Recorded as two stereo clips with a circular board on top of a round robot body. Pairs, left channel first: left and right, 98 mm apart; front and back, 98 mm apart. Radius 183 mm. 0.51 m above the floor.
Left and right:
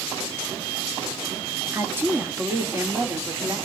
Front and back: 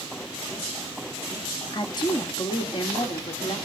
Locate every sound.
1.7 s a woman speaking: 30° right, 1.8 m